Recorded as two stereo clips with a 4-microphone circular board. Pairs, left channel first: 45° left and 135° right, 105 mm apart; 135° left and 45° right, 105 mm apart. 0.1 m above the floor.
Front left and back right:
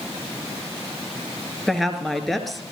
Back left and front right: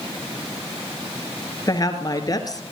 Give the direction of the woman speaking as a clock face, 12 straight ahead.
8 o'clock.